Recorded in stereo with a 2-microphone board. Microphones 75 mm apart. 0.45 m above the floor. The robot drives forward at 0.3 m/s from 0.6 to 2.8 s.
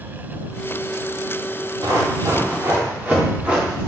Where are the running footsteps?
55° right (ahead or behind), 3 m; by 3.9 s centre (ahead or behind), 3 m.